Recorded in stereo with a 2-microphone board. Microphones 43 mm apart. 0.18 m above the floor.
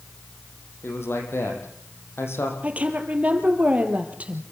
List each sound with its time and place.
0.8 s a man speaking: 75° left (ahead or behind), 6.5 m
2.6 s a woman speaking: 35° right (ahead or behind), 4 m